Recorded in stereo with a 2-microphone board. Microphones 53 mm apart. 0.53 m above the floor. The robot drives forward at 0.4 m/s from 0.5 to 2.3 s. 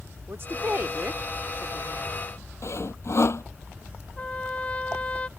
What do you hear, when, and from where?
0.3 s a woman speaking: 45° right (ahead or behind); by 2.3 s 35° right (ahead or behind)
2.6 s sawing: 55° left (ahead or behind)
4.2 s a trumpet: 25° left (ahead or behind)